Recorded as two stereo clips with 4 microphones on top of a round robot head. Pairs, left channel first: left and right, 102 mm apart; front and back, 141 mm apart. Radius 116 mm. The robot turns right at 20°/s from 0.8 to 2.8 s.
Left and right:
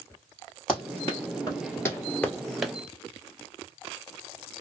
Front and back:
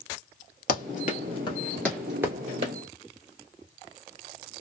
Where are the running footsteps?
5° left, 1.5 m; by 2.7 s 165° right, 1.1 m.